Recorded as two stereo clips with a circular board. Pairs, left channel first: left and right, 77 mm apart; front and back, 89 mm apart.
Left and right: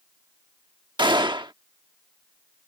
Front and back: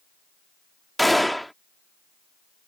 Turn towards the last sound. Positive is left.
turn(degrees=-90)